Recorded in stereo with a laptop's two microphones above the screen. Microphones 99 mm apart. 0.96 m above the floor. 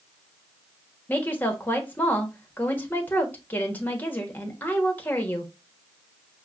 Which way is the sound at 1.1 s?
20° left (ahead or behind).